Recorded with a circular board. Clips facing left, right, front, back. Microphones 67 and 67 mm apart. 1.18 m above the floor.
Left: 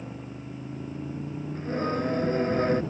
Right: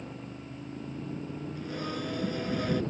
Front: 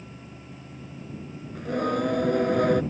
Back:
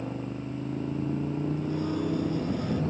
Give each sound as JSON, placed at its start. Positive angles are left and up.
{"t": 0.0, "sound": "a motorcycle", "azimuth_deg": 175}
{"t": 1.6, "sound": "singing", "azimuth_deg": 35}